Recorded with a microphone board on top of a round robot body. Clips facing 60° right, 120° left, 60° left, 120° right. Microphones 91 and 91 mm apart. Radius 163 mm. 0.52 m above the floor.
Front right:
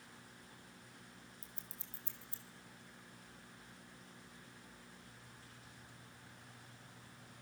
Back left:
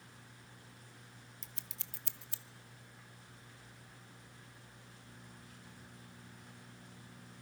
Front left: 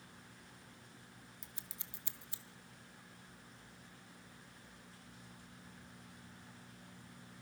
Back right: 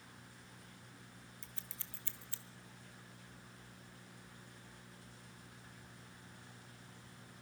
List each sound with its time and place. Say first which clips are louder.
1.4 s scissors: back left 1 dB, even; 135° left, 0.9 m